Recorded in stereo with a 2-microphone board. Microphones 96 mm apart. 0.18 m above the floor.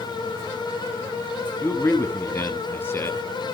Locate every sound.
1.6 s a man speaking: 25° left (ahead or behind), 1.3 m